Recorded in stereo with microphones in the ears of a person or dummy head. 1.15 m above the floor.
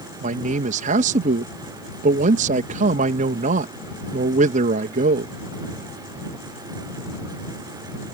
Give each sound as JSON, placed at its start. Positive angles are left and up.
{"t": 0.2, "sound": "a man speaking", "side_deg": -50}